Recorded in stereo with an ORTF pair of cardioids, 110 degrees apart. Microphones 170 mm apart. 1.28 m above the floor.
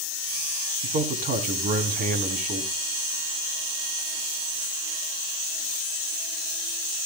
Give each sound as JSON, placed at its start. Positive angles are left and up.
{"t": 0.8, "sound": "a man speaking", "azimuth_deg": -65, "distance_m": 3.0}